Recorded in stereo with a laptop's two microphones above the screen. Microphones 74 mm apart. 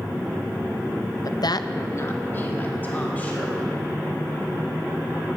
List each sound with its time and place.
1.2 s a woman speaking: 55° left (ahead or behind), 0.5 m; by 3.8 s 20° left (ahead or behind), 3 m